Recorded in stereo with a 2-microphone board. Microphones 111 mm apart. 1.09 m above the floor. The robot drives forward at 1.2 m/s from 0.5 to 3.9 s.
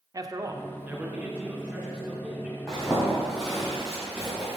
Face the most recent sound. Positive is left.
turn(degrees=5)  # may be behind; listen again after turning